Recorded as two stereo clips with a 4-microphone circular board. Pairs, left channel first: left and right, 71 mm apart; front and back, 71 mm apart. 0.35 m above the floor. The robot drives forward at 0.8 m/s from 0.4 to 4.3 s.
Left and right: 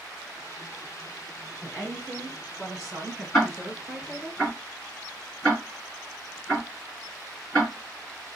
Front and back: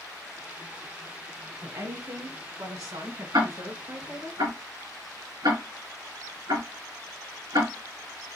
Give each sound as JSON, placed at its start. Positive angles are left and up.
{"t": 1.6, "sound": "a woman speaking", "azimuth_deg": 180, "distance_m": 2.5}
{"t": 3.3, "sound": "ticking", "azimuth_deg": 170, "distance_m": 2.5}